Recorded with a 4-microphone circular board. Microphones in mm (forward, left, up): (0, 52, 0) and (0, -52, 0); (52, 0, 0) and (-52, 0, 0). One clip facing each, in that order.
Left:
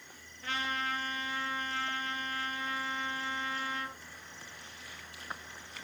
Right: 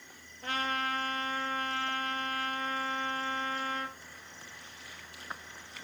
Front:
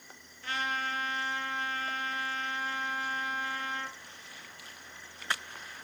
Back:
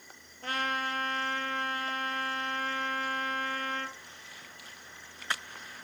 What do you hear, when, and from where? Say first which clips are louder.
0.4 s a trumpet: right 2 dB, back 2 dB; 135° right, 1.5 m